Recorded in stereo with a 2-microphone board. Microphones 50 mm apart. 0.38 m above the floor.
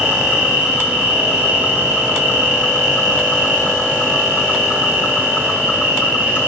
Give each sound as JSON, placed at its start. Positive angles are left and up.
{"t": 0.0, "sound": "an insect", "side_deg": -25, "distance_m": 4.0}